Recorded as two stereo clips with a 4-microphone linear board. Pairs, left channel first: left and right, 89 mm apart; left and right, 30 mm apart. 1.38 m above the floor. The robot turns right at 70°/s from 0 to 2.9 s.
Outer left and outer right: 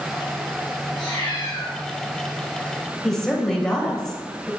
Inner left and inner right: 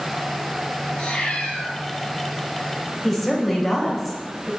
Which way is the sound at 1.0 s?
85° left.